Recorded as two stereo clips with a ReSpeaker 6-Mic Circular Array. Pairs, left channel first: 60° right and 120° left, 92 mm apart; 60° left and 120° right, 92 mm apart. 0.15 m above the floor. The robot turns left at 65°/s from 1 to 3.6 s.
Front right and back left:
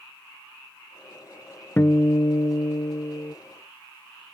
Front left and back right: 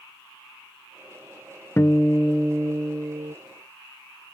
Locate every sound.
1.8 s a guitar: 5° left; by 3.4 s 100° right